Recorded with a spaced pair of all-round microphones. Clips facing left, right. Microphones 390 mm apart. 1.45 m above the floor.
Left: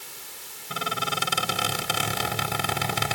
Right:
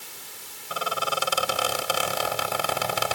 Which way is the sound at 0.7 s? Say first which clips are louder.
Right 2 dB; 35° left (ahead or behind).